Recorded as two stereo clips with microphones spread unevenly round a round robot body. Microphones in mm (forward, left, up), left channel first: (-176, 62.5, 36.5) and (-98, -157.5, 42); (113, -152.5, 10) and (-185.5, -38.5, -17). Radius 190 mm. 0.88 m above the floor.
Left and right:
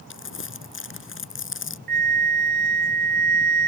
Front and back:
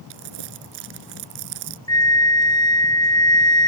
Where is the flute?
90° right.